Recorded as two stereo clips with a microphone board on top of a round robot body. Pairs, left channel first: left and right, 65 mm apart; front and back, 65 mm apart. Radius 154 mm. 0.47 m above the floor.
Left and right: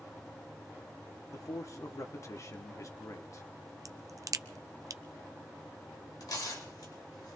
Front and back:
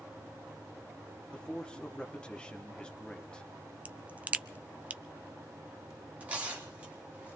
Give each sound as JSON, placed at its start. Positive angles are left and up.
{"t": 1.3, "sound": "a man speaking", "azimuth_deg": 70, "distance_m": 1.2}
{"t": 3.9, "sound": "a crack", "azimuth_deg": -115, "distance_m": 0.6}
{"t": 6.2, "sound": "tearing paper", "azimuth_deg": 110, "distance_m": 4.5}